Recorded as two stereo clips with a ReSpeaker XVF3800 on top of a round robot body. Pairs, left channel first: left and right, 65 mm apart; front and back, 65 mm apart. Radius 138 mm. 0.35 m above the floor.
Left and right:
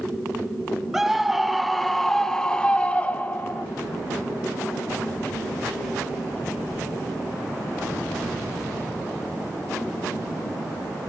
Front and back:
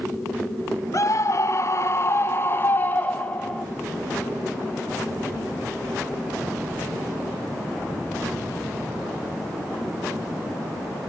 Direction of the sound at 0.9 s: 10° right.